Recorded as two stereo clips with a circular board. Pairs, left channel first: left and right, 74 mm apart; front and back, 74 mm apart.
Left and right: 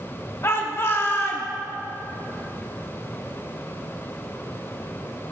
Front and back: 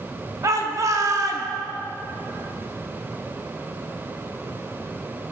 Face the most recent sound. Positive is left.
turn(degrees=140)